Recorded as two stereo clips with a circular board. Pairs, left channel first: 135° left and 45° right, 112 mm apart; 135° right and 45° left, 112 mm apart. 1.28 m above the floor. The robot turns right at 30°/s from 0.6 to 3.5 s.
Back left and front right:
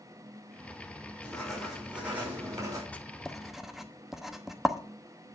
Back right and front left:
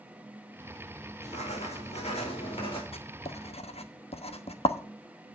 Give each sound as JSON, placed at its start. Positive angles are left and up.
{"t": 1.2, "sound": "writing", "azimuth_deg": -145, "distance_m": 5.5}
{"t": 2.9, "sound": "writing", "azimuth_deg": -150, "distance_m": 1.1}